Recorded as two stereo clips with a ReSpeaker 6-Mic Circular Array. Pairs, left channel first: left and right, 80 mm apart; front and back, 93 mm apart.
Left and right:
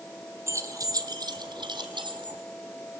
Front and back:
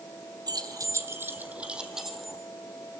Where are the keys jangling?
140° right, 2 m; by 2.4 s 85° right, 3 m.